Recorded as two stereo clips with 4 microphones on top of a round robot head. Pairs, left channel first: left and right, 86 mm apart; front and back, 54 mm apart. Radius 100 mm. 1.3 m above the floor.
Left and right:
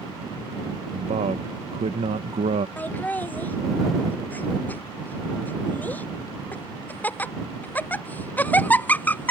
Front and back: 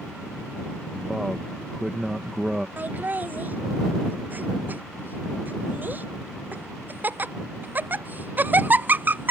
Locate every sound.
0.9 s a man speaking: 90° right
2.8 s laughter: 150° left